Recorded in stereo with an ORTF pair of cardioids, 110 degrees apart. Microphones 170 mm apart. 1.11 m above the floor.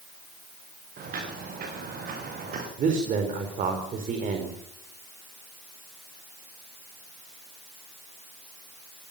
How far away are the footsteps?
About 6 m.